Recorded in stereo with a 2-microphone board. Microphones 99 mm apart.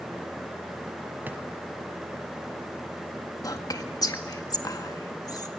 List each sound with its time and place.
1.3 s a drawer: 20° right (ahead or behind), 1.7 m
3.4 s whispering: 40° left (ahead or behind), 1.8 m